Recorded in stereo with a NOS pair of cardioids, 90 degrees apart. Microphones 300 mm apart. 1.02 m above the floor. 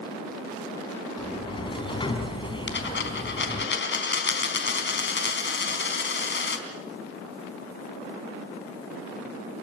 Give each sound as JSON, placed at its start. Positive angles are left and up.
{"t": 1.2, "sound": "a sliding door", "azimuth_deg": 15, "distance_m": 4.0}
{"t": 2.7, "sound": "a dropped coin", "azimuth_deg": 40, "distance_m": 4.0}